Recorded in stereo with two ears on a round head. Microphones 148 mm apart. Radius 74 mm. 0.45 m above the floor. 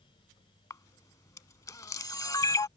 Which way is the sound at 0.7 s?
20° left (ahead or behind).